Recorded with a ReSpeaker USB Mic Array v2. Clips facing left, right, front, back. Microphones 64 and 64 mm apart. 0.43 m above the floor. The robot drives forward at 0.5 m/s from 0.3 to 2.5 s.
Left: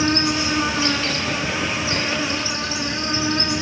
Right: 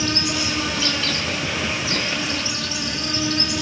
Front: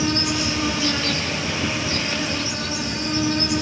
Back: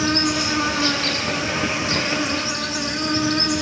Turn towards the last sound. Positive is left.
turn(degrees=155)